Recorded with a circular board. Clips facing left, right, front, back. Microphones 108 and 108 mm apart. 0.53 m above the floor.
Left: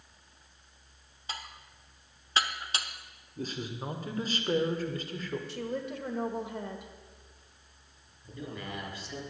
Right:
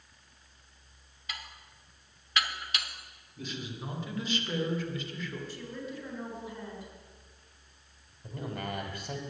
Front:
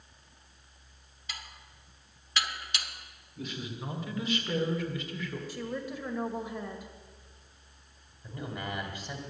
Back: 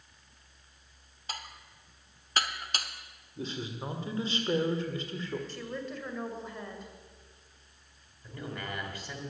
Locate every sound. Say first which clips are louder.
1.3 s dishes clattering: left 3 dB, back 4 dB; 140° left, 0.8 m
3.4 s a man speaking: left 3 dB, back 2 dB; 125° left, 1.8 m
5.5 s a woman speaking: left 5 dB, front 2 dB; 80° left, 1.8 m
8.2 s a man speaking: right 3 dB, front 2 dB; 75° right, 2.5 m